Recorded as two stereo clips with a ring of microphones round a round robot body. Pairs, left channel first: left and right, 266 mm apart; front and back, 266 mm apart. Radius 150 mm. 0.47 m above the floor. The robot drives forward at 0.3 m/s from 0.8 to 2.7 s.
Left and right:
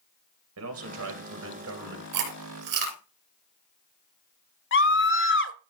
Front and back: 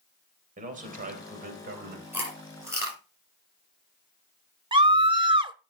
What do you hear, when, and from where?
0.6 s a man speaking: 120° right, 3 m; by 2.0 s 125° right, 3 m
2.1 s chewing: 95° right, 4 m; by 3.0 s 100° right, 4 m
4.7 s a scream: 115° left, 1.3 m